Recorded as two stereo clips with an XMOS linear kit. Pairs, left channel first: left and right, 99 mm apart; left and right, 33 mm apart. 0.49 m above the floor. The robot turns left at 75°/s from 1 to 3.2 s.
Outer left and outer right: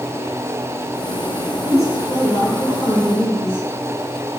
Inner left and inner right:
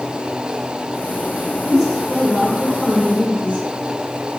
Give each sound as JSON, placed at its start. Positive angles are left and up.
{"t": 1.6, "sound": "a woman speaking", "azimuth_deg": 10, "distance_m": 1.4}